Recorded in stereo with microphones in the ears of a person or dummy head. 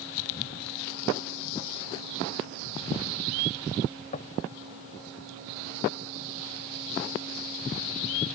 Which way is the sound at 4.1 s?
45° left (ahead or behind).